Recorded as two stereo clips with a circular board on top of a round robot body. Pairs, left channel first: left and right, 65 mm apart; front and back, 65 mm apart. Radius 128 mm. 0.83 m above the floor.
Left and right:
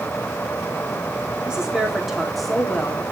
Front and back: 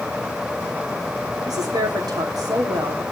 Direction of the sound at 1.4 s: 165° right.